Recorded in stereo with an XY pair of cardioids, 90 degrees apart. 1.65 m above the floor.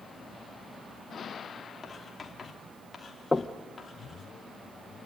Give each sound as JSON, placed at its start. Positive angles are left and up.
{"t": 1.8, "sound": "writing", "azimuth_deg": 35, "distance_m": 3.5}
{"t": 3.3, "sound": "knocking", "azimuth_deg": 10, "distance_m": 1.4}